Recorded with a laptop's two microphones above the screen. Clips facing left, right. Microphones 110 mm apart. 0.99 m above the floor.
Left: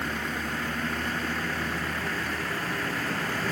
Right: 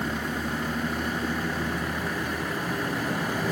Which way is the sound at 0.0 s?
15° right (ahead or behind).